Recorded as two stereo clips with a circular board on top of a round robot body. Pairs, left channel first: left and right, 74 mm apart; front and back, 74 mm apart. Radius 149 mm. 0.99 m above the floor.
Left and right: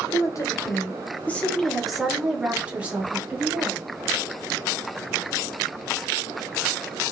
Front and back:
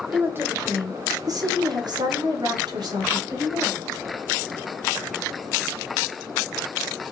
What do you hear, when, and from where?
0.1 s a woman speaking: 120° left, 1.1 m; by 3.8 s 150° right, 1.8 m